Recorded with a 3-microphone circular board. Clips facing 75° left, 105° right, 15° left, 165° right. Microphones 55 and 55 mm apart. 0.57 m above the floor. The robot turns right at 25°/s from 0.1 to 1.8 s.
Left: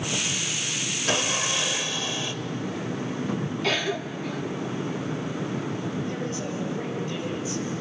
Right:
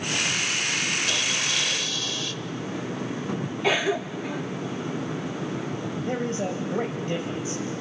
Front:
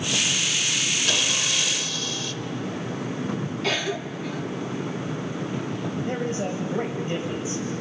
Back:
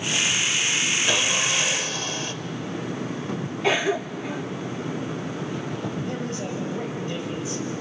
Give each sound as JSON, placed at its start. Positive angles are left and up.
{"t": 1.1, "sound": "sawing", "azimuth_deg": 125, "distance_m": 0.8}
{"t": 3.6, "sound": "a cough", "azimuth_deg": -150, "distance_m": 0.6}
{"t": 6.0, "sound": "a man speaking", "azimuth_deg": -55, "distance_m": 2.5}